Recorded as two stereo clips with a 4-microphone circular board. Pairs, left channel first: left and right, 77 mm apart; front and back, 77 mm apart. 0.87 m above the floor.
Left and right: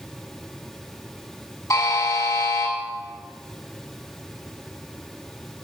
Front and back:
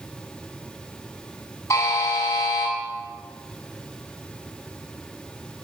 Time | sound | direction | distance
1.7 | a buzzer | 50° left | 8 m